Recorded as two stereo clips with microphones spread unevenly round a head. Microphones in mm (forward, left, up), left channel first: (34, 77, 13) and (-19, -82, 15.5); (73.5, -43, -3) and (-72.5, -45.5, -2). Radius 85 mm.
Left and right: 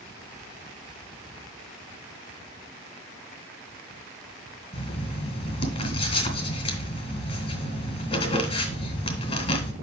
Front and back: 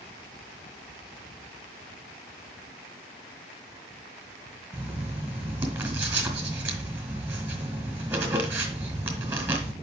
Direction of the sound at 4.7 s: 105° left.